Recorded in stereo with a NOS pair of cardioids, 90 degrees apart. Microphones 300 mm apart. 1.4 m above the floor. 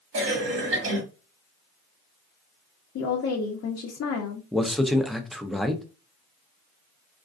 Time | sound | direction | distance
0.1 | a cough | 45° right | 1.6 m
3.0 | a woman speaking | 50° left | 0.7 m
4.5 | a man speaking | straight ahead | 0.5 m